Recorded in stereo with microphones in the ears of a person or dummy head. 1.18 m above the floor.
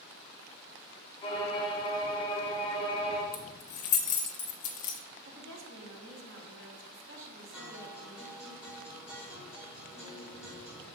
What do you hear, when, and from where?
1.2 s a violin: 30° left (ahead or behind), 1.6 m
3.3 s keys jangling: 45° left (ahead or behind), 0.8 m
5.2 s a woman speaking: 60° right (ahead or behind), 1.2 m
7.5 s a guitar: 5° right (ahead or behind), 2.0 m